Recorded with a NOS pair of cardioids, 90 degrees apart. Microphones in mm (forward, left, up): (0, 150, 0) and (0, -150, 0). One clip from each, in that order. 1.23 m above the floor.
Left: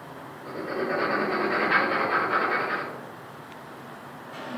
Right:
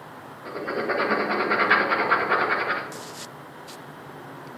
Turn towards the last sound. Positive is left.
turn(degrees=-60)